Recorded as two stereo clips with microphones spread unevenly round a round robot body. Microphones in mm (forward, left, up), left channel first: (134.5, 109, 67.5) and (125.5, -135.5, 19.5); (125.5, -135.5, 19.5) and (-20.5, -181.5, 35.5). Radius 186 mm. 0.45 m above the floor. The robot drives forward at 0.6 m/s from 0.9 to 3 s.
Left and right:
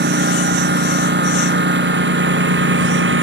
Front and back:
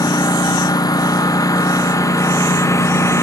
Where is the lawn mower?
50° right; by 3.2 s 55° right.